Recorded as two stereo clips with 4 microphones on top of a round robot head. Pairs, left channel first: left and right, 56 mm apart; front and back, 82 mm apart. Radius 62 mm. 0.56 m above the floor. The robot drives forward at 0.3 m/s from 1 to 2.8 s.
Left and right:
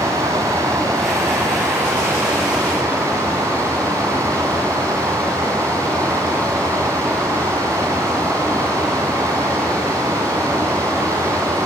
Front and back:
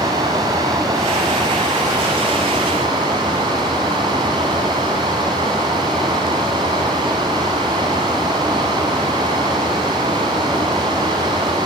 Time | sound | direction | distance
0.0 | running water | 130° right | 2.5 m